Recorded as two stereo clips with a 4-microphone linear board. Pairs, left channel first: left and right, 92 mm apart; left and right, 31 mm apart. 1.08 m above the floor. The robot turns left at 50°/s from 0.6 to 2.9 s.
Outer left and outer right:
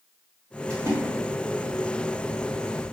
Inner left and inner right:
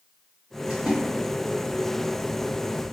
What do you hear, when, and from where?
0.7 s a splash: 35° right (ahead or behind), 0.8 m; by 1.0 s 30° right (ahead or behind), 0.8 m